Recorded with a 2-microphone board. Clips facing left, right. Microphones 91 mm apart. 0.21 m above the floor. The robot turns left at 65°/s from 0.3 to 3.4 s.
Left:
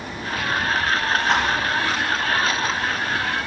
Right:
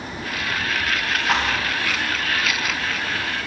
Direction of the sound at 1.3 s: 10° right (ahead or behind).